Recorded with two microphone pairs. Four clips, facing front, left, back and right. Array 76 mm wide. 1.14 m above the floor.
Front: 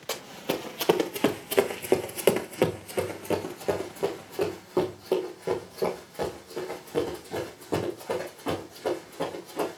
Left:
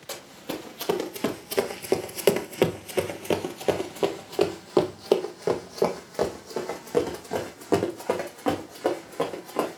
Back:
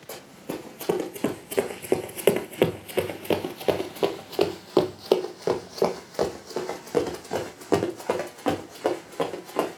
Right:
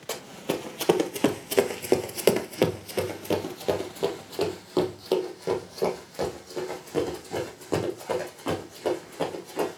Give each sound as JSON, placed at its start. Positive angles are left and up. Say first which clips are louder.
{"t": 0.1, "sound": "running footsteps", "louder": "right 5 dB, front 4 dB", "azimuth_deg": -20, "distance_m": 1.5}